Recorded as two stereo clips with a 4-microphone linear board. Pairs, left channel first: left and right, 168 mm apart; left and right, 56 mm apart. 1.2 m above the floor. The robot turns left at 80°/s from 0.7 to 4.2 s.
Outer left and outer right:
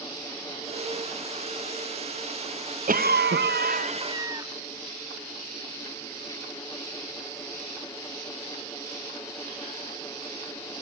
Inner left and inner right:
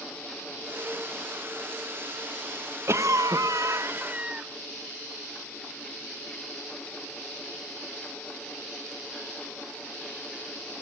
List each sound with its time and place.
2.9 s a cough: 50° right, 1.1 m; by 4.5 s 160° right, 1.1 m